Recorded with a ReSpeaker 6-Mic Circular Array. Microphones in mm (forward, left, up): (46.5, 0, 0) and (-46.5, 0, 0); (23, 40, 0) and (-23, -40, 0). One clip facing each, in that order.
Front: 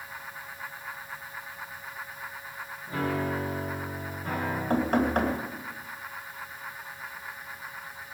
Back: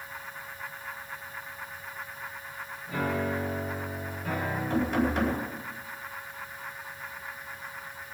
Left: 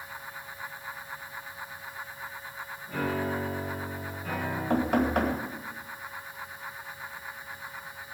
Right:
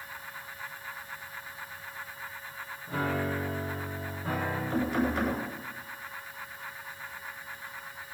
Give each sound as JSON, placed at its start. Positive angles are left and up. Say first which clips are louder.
{"t": 2.9, "sound": "a piano", "louder": "even, left 1 dB", "azimuth_deg": -65, "distance_m": 7.5}
{"t": 4.7, "sound": "knocking", "louder": "front 2 dB, left 5 dB", "azimuth_deg": 35, "distance_m": 4.0}